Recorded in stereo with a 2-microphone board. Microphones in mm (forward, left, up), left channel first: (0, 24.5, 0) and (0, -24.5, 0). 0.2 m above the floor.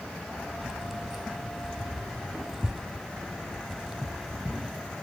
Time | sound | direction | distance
0.6 | keys jangling | 10° right (ahead or behind) | ?